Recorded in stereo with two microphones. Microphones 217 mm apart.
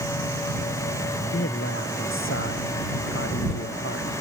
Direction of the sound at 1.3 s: 65° left (ahead or behind).